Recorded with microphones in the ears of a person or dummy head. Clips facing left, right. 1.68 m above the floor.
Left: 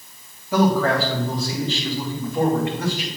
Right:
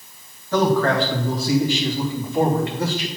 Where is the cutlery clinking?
No cutlery clinking in this recording.